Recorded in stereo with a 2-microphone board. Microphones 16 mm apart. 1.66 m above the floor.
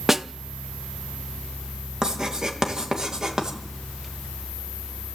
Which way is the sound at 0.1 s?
20° right (ahead or behind).